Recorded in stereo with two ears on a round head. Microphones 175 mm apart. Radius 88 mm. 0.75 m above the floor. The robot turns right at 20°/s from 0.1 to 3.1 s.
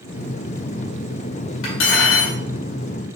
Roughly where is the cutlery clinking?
Left.